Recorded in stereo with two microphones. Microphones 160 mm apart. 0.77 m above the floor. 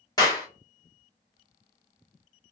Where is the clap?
25° left (ahead or behind), 1.2 m.